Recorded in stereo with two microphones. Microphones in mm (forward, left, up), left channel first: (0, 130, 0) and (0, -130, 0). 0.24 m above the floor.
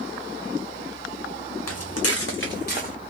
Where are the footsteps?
80° left, 1.0 m; by 2.9 s 30° left (ahead or behind), 1.4 m.